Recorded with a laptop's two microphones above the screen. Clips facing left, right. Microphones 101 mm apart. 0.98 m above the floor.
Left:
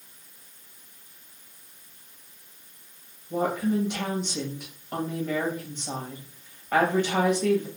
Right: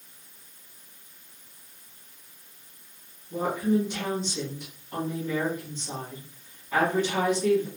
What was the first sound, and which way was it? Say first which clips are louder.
A woman speaking: even; 60° left (ahead or behind).